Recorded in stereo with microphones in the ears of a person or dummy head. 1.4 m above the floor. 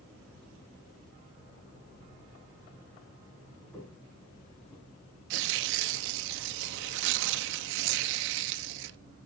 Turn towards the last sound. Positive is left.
turn(degrees=-65)  # may be behind; listen again after turning